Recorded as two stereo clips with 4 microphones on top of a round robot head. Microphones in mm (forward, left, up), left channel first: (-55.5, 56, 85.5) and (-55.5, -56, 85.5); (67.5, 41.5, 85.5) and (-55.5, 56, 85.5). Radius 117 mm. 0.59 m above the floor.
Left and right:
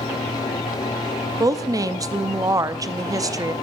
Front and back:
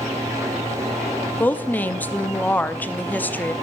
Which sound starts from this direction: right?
A woman speaking, at 1.4 s.